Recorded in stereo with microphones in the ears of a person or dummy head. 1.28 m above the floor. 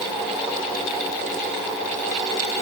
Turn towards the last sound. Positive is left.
No sound to turn to.